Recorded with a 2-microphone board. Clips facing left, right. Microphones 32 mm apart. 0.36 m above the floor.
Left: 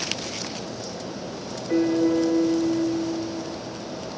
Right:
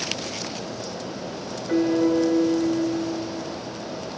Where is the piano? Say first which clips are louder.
Even; 60° right (ahead or behind), 6.5 m.